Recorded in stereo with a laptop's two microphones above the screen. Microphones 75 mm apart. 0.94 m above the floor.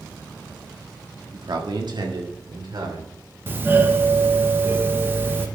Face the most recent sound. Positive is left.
turn(degrees=-30)  # may be behind; listen again after turning